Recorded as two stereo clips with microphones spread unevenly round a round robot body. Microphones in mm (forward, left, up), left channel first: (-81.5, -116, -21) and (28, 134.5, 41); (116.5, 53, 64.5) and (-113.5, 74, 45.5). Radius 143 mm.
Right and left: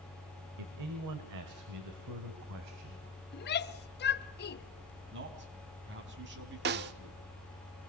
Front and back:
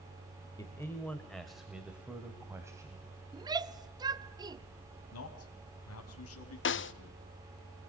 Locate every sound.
0.6 s a man speaking: 70° left, 1.9 m; by 3.1 s 100° left, 3 m
3.3 s a shout: 120° right, 1.0 m
5.1 s a man speaking: 10° left, 4 m
6.7 s a snare drum: 10° left, 0.7 m